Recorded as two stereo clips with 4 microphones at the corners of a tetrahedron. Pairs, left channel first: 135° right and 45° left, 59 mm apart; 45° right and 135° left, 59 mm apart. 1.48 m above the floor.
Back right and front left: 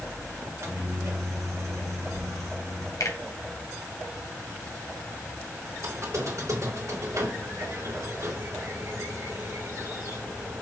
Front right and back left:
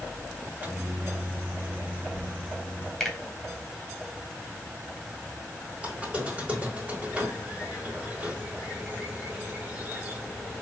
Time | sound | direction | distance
0.4 | a microwave | 75° left | 2 m
3.0 | a finger snap | 130° right | 2.5 m
5.8 | a squeak | 70° left | 3 m